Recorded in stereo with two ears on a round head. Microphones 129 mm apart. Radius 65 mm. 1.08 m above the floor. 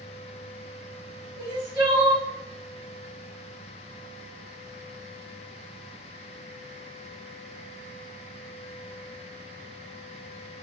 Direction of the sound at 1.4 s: 25° right (ahead or behind).